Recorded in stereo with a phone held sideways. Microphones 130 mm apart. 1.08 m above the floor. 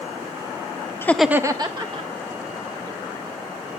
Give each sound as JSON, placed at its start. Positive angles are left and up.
{"t": 1.0, "sound": "laughter", "side_deg": 20, "distance_m": 0.6}